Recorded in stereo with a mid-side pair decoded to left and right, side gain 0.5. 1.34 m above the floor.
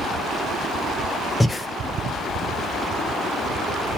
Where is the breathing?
20° left, 0.6 m.